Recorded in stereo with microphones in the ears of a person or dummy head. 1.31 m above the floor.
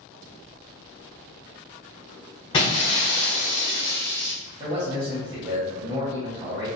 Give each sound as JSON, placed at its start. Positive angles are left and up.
{"t": 2.5, "sound": "breaking glass", "side_deg": 25, "distance_m": 0.6}
{"t": 4.6, "sound": "a man speaking", "side_deg": -35, "distance_m": 0.7}